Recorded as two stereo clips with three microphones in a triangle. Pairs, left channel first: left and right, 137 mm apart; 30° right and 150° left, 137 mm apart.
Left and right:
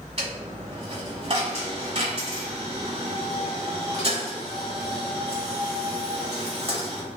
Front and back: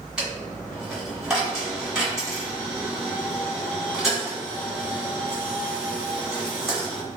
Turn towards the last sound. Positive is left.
turn(degrees=-125)